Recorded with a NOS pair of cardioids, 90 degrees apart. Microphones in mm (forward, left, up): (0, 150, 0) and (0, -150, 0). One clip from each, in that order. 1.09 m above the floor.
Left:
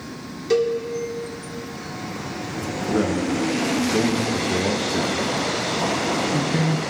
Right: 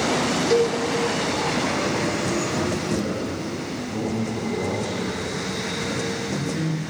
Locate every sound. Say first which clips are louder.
0.5 s a cowbell: left 2 dB; 20° left, 2 m
2.9 s a man speaking: left 4 dB; 65° left, 1.4 m